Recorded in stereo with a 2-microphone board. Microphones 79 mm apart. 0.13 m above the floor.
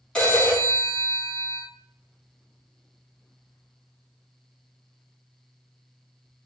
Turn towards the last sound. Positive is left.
turn(degrees=15)  # may be behind; listen again after turning